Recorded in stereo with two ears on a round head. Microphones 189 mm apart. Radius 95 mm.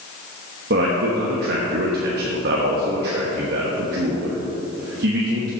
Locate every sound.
0.7 s a man speaking: 50° right (ahead or behind), 1.1 m